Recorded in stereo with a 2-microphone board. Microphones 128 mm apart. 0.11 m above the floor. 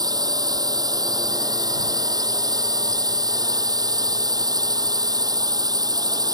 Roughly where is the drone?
Right.